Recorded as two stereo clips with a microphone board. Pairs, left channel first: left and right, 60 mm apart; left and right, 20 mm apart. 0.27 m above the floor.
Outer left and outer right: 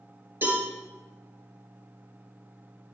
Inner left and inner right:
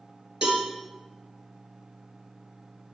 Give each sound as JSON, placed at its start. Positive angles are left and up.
{"t": 0.4, "sound": "a cowbell", "side_deg": -35, "distance_m": 4.5}